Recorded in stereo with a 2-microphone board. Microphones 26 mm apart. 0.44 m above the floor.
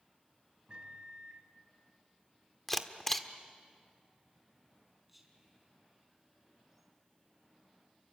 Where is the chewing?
No chewing in this recording.